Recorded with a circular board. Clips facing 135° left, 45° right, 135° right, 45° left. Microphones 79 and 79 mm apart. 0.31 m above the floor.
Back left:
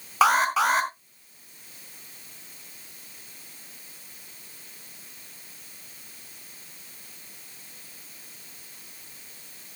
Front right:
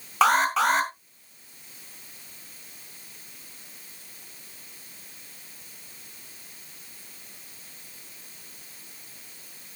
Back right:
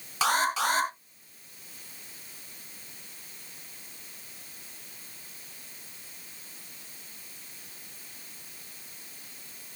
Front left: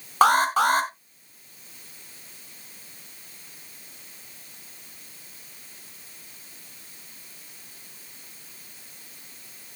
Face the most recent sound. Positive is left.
turn(degrees=50)